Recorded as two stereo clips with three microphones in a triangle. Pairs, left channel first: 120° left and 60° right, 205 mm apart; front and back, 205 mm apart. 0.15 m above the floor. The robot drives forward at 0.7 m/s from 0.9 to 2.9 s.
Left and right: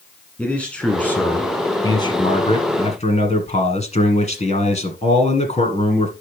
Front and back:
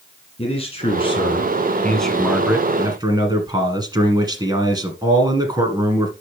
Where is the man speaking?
40° left, 1.7 m; by 6.1 s 130° left, 1.6 m.